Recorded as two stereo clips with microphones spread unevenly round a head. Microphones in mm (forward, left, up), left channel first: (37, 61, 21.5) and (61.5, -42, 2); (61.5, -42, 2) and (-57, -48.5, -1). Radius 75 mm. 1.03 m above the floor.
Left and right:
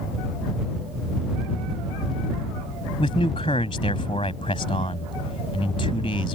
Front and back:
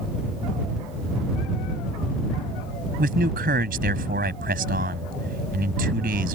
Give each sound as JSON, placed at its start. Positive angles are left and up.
{"t": 3.0, "sound": "a man speaking", "azimuth_deg": 165}